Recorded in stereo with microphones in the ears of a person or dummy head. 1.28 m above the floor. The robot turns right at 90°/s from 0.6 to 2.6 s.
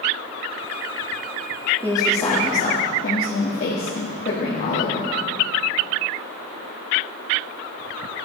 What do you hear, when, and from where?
1.8 s a woman speaking: 15° right, 1.6 m; by 5.1 s 55° left, 1.6 m